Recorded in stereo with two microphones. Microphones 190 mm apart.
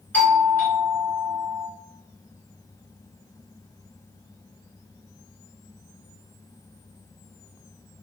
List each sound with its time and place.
0.1 s a doorbell: 10° left (ahead or behind), 1.7 m